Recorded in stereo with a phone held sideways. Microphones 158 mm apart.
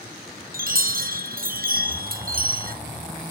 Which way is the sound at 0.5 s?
65° right (ahead or behind).